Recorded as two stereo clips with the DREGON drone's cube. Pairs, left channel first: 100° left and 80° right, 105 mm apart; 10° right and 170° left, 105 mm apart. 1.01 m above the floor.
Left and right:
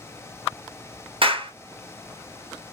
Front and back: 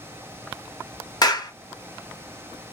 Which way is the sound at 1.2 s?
60° right.